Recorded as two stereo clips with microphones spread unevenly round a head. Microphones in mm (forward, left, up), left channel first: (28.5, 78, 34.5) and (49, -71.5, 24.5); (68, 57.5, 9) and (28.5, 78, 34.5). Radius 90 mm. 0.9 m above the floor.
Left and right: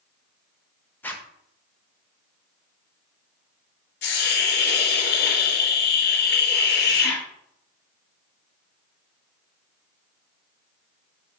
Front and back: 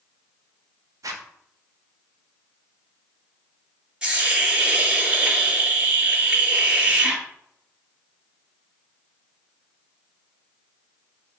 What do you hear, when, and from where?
1.0 s a zipper: 175° left, 0.8 m
4.0 s a hiss: 95° left, 2.5 m